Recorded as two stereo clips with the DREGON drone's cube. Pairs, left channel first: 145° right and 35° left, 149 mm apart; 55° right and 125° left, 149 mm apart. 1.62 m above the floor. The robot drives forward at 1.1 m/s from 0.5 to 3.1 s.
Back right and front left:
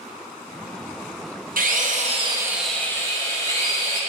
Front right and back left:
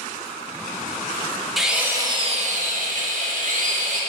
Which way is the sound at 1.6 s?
35° left.